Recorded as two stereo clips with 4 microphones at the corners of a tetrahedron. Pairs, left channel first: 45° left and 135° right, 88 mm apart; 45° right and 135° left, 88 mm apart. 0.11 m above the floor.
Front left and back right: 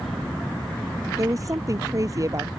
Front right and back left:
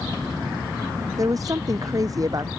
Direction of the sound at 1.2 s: Straight behind.